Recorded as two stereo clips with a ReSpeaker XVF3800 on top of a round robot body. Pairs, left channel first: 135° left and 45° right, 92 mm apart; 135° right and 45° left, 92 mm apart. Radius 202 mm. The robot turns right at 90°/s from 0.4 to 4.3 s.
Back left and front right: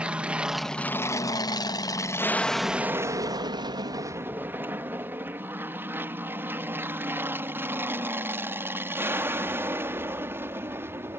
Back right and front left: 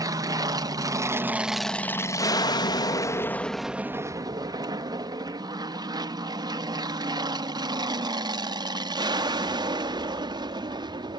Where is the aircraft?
30° left; by 11.2 s 15° left.